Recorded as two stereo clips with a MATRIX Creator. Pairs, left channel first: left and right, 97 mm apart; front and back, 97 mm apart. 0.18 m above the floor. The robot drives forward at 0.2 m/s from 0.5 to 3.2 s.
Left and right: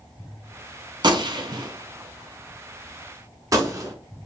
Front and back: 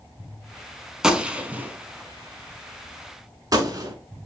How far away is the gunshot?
About 0.6 m.